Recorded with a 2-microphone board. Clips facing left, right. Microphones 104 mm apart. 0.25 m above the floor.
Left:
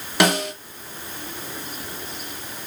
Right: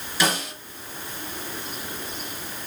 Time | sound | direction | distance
0.2 | a snare drum | 70° left (ahead or behind) | 5.5 m